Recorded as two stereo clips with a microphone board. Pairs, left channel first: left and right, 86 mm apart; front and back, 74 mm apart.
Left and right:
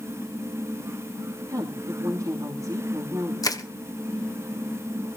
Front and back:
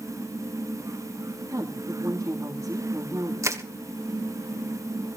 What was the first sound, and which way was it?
A woman speaking, 130° right.